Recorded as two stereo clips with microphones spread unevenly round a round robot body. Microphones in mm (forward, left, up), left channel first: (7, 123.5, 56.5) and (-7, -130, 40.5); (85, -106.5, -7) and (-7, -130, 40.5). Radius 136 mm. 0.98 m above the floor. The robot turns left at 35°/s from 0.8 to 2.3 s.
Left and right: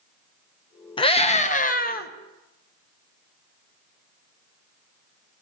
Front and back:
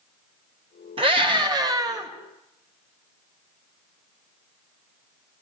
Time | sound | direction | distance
1.0 | a scream | 150° left | 0.9 m